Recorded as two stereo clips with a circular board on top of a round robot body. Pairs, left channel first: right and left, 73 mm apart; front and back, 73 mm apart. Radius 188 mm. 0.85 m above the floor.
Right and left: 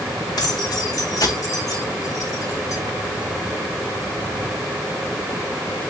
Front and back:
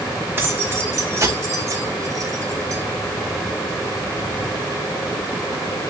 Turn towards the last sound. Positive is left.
turn(degrees=-140)